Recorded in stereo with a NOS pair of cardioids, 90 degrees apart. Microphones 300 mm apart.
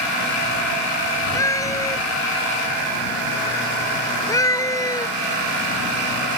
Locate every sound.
1.4 s a cat meowing: 10° left